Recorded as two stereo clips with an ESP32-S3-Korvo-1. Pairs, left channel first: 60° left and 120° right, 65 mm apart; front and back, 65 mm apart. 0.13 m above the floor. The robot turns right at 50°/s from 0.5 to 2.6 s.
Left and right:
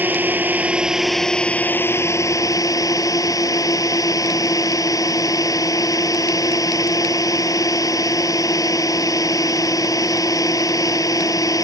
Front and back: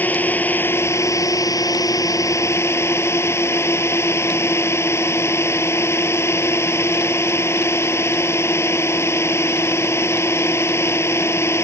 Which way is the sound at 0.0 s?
60° right.